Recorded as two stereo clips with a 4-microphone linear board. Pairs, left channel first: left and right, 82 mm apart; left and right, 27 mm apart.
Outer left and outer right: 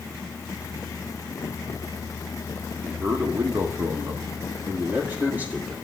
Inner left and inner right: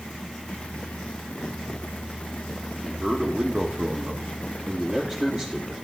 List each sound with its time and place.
2.8 s a man speaking: 20° right (ahead or behind), 1.6 m